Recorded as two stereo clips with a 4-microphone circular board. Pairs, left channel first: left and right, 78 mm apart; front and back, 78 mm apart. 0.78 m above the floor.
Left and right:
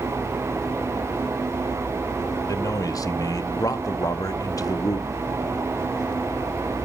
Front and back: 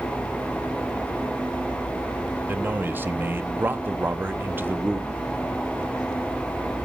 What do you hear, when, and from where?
2.5 s a man speaking: 120° left, 0.8 m